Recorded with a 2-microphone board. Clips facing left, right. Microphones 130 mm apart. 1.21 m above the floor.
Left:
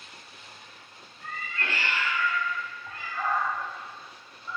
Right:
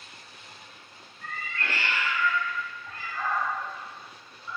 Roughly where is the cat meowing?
Centre.